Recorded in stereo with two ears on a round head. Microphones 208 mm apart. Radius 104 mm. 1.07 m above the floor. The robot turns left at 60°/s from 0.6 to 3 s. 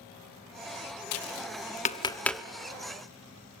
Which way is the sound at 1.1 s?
65° left (ahead or behind).